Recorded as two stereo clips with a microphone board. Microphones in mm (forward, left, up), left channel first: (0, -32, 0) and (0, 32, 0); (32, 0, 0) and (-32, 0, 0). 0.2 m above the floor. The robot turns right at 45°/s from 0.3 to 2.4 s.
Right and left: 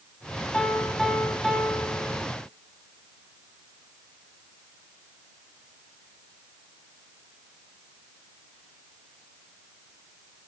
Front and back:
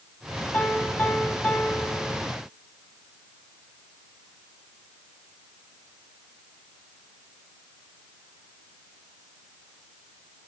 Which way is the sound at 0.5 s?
35° right.